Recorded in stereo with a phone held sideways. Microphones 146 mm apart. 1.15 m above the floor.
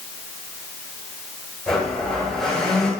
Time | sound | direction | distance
1.7 | a blender | 5° left (ahead or behind) | 10 m